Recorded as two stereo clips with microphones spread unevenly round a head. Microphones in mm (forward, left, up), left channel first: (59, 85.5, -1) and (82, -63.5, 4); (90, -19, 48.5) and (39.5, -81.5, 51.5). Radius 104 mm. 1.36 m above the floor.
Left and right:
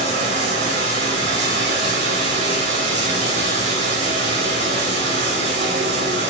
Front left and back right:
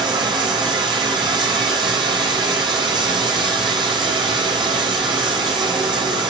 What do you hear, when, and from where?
0.0 s running water: 105° right, 9 m